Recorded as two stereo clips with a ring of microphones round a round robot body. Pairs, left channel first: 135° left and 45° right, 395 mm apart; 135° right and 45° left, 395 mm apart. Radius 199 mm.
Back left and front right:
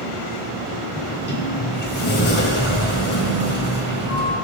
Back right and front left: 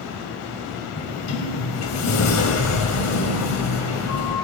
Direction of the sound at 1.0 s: 170° right.